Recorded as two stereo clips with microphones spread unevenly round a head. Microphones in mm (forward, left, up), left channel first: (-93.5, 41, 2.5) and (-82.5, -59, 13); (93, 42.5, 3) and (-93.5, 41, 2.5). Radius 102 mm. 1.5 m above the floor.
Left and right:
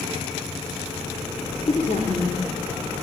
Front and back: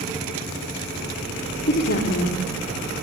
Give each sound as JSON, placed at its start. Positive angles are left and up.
{"t": 1.7, "sound": "a woman speaking", "azimuth_deg": 40, "distance_m": 3.5}